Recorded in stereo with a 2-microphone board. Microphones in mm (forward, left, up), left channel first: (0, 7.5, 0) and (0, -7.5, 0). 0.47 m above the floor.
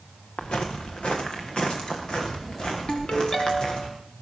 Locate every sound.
0.4 s footsteps: 80° left, 2.5 m; by 3.9 s 60° left (ahead or behind), 6 m
2.9 s a ringtone: 70° left (ahead or behind), 2.5 m